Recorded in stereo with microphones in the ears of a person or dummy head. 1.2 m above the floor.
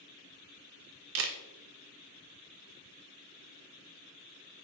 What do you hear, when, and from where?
1.1 s a camera shutter: 75° right (ahead or behind), 0.8 m